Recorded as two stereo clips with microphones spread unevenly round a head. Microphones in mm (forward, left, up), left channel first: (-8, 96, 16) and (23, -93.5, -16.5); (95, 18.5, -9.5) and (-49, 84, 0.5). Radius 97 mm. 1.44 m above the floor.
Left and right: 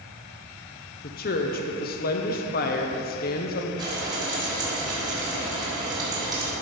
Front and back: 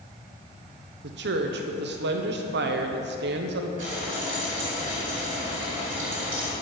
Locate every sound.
1.0 s a woman speaking: 145° left, 0.7 m
3.8 s frying: 150° right, 2.5 m